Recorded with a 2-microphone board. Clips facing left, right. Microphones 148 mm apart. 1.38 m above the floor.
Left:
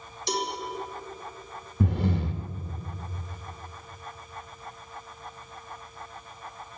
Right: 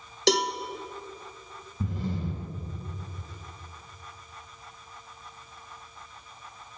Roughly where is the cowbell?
Right.